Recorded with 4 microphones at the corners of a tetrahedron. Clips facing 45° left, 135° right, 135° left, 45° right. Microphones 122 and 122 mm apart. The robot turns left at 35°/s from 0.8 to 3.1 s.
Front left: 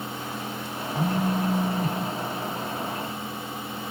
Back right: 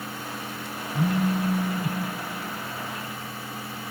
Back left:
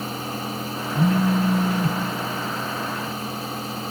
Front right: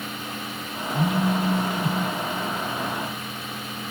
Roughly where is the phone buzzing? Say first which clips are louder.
Back right 1 dB, back left 3 dB; behind left.